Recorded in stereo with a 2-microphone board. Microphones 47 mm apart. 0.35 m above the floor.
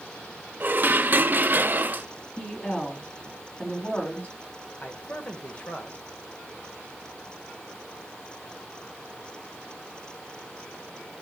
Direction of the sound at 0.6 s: 40° right (ahead or behind).